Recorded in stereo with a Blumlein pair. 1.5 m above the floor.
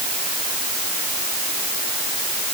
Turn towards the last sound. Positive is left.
No sound to turn to.